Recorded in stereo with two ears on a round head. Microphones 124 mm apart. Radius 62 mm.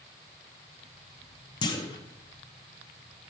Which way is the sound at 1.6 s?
30° left (ahead or behind).